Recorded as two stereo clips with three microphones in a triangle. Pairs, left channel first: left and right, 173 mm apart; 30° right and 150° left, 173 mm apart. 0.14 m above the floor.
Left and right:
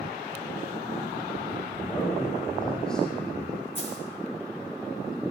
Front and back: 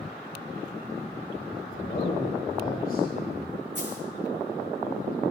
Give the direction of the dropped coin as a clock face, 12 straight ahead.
8 o'clock.